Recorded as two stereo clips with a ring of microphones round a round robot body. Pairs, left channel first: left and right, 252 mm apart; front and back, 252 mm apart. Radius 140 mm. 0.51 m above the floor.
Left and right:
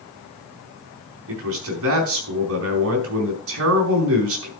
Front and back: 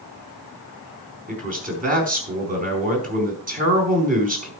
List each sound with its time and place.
1.3 s a man speaking: 120° right, 4.5 m